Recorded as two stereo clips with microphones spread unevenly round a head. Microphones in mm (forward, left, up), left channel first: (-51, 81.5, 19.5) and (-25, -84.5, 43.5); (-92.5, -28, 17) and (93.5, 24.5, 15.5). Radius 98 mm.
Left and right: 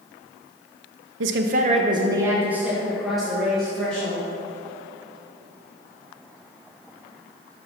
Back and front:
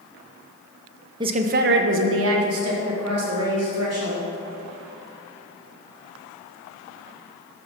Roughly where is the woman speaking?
Ahead right.